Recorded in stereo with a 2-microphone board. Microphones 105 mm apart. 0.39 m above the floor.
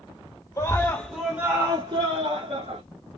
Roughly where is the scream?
Left.